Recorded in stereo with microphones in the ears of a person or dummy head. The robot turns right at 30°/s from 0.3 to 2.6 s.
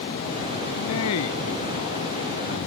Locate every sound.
0.8 s a man speaking: 95° left; by 2.6 s 150° left